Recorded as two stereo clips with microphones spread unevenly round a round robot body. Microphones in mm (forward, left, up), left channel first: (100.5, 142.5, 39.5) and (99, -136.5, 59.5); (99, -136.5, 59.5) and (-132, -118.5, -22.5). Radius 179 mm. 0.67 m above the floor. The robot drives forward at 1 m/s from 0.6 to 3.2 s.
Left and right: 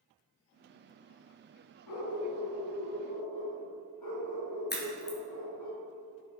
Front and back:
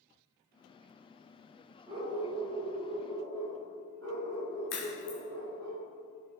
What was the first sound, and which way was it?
A dog barking, 95° left.